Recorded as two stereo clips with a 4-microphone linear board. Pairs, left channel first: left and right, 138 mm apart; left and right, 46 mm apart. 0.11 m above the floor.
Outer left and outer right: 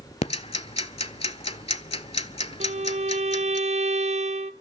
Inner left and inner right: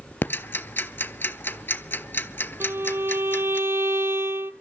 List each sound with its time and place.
0.2 s ticking: 50° left (ahead or behind), 0.5 m
2.6 s a violin: 60° right (ahead or behind), 0.5 m